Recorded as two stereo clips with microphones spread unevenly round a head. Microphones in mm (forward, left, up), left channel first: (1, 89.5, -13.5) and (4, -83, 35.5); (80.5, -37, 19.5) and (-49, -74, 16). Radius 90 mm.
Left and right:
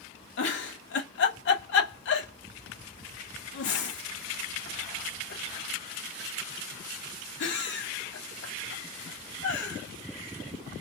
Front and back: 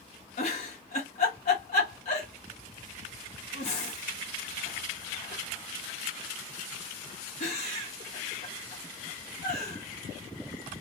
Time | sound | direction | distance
0.4 | a giggle | 70° left | 1.3 m